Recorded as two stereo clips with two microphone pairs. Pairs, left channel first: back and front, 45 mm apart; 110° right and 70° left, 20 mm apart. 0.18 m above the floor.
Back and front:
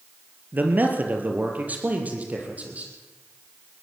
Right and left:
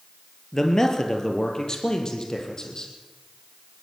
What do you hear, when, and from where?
0.5 s a man speaking: 45° right, 3 m; by 2.9 s 55° right, 5.5 m